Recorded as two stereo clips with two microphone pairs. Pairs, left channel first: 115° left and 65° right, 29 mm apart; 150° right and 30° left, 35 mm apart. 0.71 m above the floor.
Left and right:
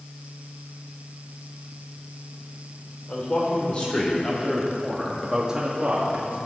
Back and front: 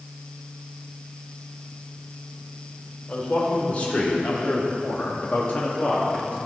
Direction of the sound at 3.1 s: 155° left.